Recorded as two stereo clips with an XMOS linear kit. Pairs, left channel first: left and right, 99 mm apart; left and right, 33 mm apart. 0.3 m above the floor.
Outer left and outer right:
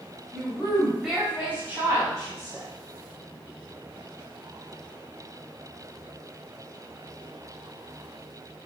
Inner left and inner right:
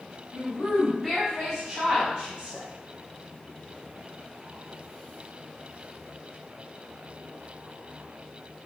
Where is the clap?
No clap in this recording.